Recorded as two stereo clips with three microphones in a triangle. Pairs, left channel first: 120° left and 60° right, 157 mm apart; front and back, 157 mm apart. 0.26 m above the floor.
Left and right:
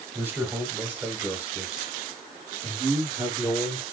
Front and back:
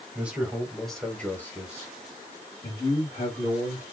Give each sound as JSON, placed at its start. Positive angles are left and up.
{"t": 0.1, "sound": "a man speaking", "azimuth_deg": -115, "distance_m": 1.4}